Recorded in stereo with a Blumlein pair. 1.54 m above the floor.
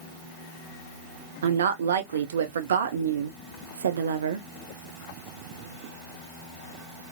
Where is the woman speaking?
65° right, 0.6 m.